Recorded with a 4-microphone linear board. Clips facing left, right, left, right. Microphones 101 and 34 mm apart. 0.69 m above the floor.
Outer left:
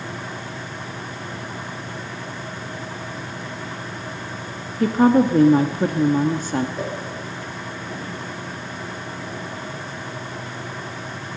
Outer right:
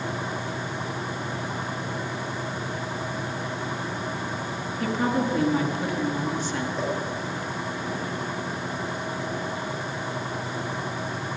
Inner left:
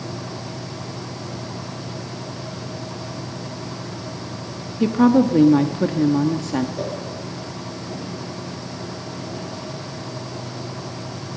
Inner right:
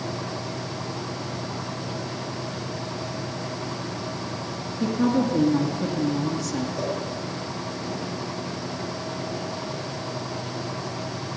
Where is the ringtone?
I don't hear a ringtone.